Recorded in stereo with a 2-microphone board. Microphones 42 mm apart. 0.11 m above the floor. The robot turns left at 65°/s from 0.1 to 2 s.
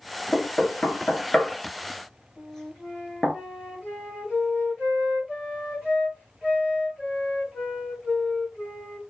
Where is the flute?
25° left (ahead or behind), 2.5 m.